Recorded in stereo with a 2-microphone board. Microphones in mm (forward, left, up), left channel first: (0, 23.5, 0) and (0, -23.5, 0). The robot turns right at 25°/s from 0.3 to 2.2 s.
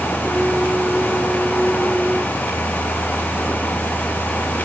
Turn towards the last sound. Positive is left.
No sound to turn to.